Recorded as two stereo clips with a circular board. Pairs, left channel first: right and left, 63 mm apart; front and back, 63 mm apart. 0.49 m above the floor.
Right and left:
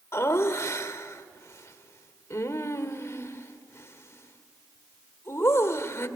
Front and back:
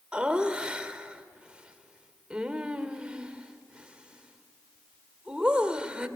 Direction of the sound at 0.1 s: 115° right.